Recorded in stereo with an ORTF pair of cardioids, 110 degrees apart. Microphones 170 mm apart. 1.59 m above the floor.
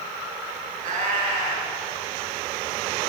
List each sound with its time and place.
0.8 s a cat meowing: 65° right, 5.5 m